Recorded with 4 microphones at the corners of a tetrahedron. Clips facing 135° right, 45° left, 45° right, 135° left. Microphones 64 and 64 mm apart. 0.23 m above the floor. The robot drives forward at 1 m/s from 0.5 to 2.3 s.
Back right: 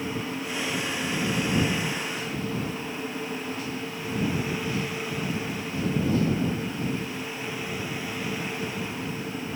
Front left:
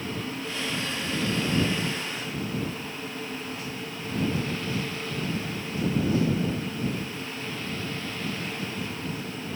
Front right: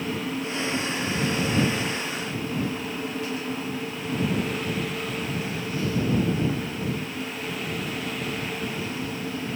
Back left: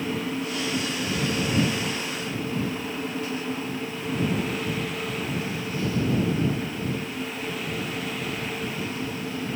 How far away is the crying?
No crying in this recording.